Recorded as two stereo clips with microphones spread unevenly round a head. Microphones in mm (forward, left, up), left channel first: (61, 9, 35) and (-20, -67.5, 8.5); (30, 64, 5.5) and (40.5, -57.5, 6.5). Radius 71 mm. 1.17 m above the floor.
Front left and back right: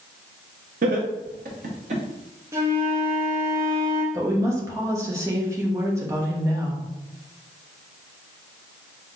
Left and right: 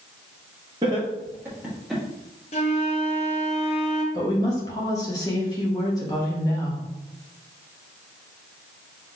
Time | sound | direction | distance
0.8 | laughter | 150° right | 1.4 m
2.5 | a flute | 145° left | 0.6 m
4.1 | a woman speaking | 160° left | 1.0 m